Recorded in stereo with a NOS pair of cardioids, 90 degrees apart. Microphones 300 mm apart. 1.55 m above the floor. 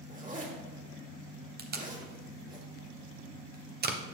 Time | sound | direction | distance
0.1 | a zipper | 25° right | 2 m
1.6 | tape being pulled | 35° right | 1.1 m